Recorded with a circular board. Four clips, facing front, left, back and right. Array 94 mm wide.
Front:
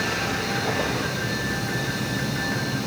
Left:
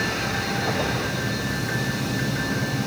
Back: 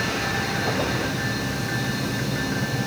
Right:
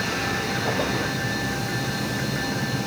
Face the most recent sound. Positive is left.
No sound to turn to.